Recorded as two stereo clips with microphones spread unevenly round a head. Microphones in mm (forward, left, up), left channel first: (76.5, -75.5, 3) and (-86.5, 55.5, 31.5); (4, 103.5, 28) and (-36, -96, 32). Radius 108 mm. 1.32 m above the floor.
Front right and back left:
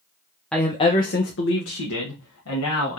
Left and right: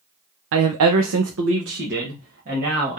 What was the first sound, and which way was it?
A woman speaking, 130° right.